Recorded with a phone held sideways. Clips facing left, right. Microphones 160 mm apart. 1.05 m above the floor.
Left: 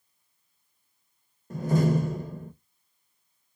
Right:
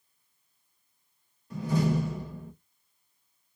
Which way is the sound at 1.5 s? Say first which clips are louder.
Left 3 dB; 45° left (ahead or behind).